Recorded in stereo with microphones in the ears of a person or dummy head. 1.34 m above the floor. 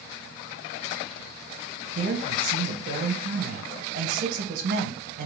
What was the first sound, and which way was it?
A man speaking, 50° right (ahead or behind).